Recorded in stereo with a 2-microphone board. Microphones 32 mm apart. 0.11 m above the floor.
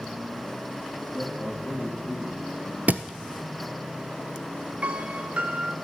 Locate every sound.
1.1 s a man speaking: 70° left (ahead or behind), 3 m
2.9 s a thud: 60° right (ahead or behind), 0.6 m
4.8 s a piano: 40° right (ahead or behind), 0.5 m